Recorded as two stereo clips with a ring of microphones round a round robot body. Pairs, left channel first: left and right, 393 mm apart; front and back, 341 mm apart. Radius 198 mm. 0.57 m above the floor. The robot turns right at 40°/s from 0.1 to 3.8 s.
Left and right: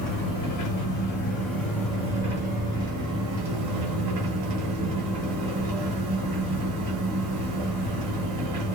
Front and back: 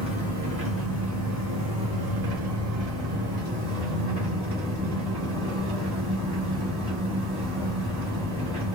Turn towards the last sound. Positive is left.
turn(degrees=-105)